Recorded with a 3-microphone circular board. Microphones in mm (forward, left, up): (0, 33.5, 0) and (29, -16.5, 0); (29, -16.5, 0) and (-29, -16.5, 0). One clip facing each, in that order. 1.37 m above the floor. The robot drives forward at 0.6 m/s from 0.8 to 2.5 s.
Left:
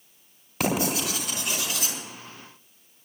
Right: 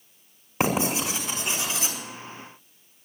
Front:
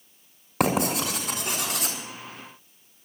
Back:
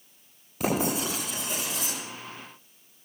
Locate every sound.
0.6 s writing: straight ahead, 5.5 m